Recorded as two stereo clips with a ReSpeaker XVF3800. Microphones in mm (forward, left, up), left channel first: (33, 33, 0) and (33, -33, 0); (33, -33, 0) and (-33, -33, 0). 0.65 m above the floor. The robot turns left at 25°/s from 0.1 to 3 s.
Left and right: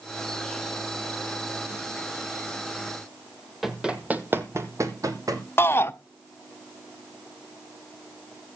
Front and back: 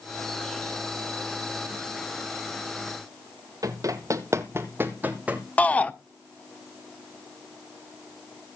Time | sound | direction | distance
3.6 | running footsteps | 175° right | 1.2 m
5.6 | a shout | 60° left | 0.8 m